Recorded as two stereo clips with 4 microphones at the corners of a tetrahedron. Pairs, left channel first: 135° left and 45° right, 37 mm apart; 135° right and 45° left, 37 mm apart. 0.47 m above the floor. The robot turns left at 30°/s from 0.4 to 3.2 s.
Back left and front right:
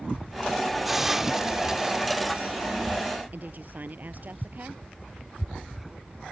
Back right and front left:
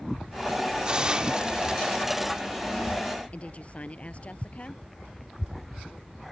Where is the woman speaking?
85° right.